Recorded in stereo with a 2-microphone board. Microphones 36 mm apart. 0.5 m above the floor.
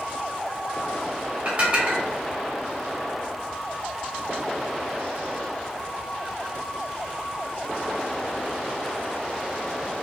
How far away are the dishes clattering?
About 0.7 m.